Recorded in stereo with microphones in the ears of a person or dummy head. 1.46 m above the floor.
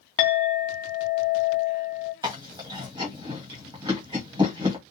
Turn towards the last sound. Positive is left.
turn(degrees=-20)  # may be behind; listen again after turning